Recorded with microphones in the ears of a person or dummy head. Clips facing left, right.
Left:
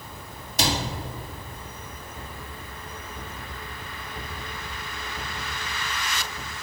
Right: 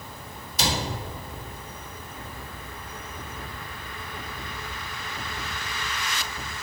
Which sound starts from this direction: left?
A cupboard door, at 0.6 s.